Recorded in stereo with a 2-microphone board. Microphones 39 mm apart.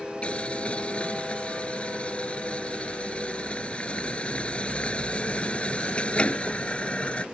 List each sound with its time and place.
0.2 s boiling: 30° left (ahead or behind)